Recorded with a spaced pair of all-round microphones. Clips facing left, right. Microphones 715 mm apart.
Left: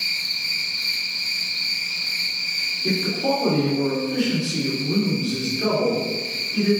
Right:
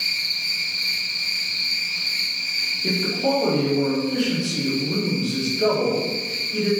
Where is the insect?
15° left (ahead or behind), 3 m.